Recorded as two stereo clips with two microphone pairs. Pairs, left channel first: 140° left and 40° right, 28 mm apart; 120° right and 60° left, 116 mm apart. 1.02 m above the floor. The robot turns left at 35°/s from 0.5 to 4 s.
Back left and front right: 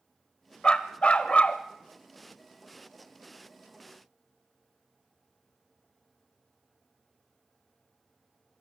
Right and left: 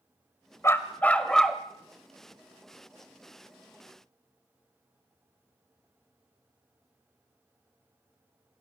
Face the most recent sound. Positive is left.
turn(degrees=65)